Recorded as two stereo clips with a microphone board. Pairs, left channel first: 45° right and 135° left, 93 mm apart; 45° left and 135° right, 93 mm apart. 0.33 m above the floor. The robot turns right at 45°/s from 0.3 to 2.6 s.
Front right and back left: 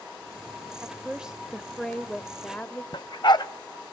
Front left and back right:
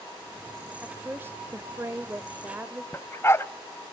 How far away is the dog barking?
About 0.6 m.